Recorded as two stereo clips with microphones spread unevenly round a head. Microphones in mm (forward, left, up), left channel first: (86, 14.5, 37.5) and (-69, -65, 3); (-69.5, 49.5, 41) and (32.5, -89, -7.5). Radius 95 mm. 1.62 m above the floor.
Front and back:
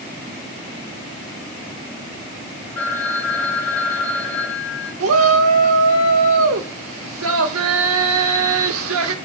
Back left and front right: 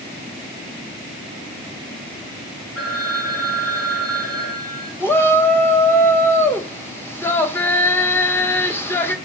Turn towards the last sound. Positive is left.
turn(degrees=-160)